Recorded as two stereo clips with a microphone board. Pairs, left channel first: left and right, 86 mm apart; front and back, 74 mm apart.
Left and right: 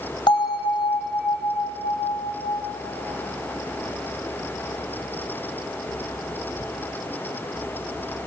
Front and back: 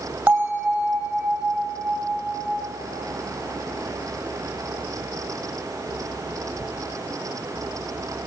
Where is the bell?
110° left, 3 m.